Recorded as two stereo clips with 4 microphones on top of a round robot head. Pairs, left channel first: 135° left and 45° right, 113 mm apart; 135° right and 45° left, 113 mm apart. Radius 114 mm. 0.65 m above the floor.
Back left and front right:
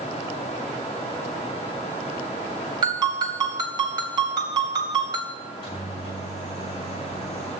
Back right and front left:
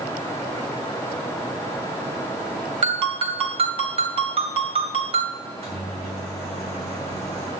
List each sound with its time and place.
2.8 s a ringtone: 10° left, 2.5 m
5.4 s a microwave: 80° left, 6.5 m